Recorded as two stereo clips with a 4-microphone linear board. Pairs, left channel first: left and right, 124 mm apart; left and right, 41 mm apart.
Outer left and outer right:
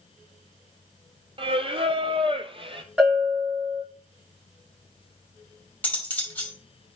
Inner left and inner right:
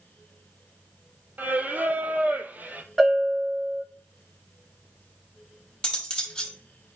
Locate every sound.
1.4 s singing: 50° right (ahead or behind), 0.7 m
3.0 s a bell: 10° right (ahead or behind), 6 m
5.8 s cutlery clinking: 15° left (ahead or behind), 2 m